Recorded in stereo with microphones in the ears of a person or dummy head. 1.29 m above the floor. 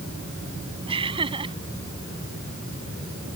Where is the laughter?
20° right (ahead or behind).